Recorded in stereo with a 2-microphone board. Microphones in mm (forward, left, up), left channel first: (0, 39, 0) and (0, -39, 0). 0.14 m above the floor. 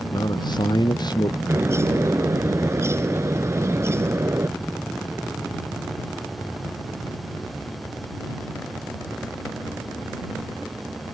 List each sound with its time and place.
0.1 s a man speaking: 60° left (ahead or behind)
1.5 s a bird: 35° right (ahead or behind)